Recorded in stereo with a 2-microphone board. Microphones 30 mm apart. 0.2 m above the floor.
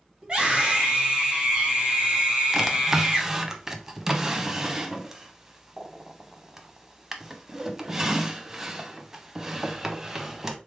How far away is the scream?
About 1.6 m.